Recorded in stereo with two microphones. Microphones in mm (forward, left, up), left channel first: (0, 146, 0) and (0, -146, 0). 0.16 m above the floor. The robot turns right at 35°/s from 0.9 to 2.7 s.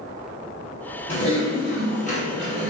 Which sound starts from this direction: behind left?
Typing on a keyboard, at 1.1 s.